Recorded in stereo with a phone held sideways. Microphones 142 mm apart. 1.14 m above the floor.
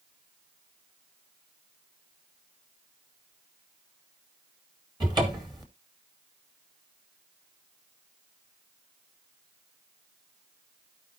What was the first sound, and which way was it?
A cupboard door, 30° right (ahead or behind).